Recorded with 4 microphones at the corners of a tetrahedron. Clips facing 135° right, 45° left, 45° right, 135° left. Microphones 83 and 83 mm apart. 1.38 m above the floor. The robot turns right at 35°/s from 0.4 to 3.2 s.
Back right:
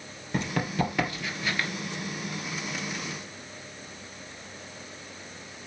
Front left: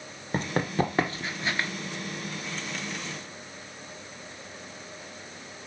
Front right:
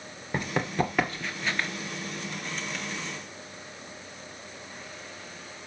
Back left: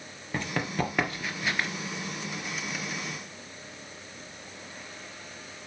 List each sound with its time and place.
0.3 s running footsteps: 25° left, 1.9 m; by 1.7 s 75° left, 1.4 m